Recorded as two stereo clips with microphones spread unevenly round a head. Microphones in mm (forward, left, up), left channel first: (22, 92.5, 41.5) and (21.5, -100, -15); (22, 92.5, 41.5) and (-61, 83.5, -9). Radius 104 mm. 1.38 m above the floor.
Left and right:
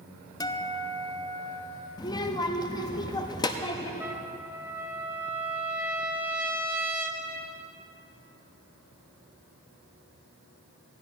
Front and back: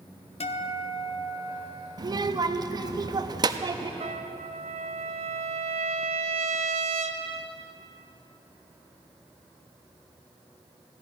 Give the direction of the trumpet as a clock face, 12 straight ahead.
6 o'clock.